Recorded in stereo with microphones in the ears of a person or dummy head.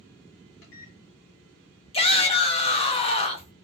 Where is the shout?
30° left (ahead or behind), 0.6 m.